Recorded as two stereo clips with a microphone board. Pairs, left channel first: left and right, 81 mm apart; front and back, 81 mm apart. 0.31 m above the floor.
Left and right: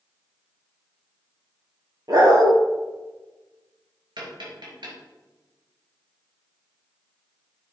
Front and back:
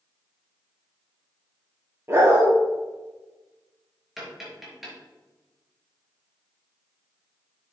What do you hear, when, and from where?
2.1 s a dog barking: 125° right, 2.5 m
4.2 s tapping: 95° right, 3.5 m